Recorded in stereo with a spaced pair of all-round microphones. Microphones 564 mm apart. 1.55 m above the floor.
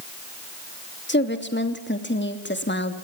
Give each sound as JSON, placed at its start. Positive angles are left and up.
{"t": 1.1, "sound": "a woman speaking", "side_deg": 20, "distance_m": 3.0}